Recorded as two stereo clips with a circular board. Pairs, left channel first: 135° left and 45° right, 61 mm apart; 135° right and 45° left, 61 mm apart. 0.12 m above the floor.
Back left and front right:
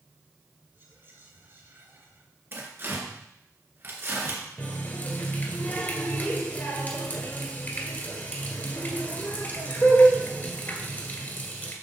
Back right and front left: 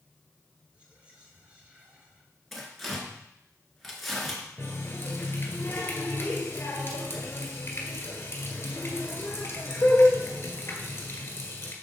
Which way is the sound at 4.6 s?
175° right.